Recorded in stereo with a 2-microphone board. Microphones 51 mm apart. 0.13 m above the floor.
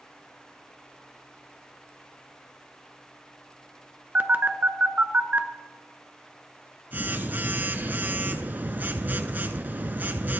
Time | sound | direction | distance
4.2 | a phone buzzing | 40° right (ahead or behind) | 0.8 m